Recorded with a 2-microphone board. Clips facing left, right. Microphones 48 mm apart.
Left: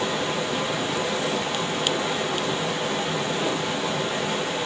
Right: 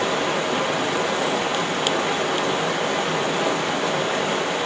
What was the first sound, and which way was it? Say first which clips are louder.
Running water: right 4 dB; 50° right (ahead or behind).